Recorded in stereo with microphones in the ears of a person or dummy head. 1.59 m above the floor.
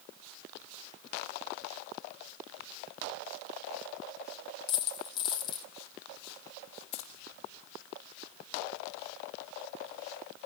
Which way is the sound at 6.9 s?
70° left (ahead or behind).